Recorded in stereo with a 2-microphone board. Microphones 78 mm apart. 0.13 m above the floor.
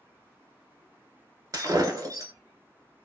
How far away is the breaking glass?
About 0.7 m.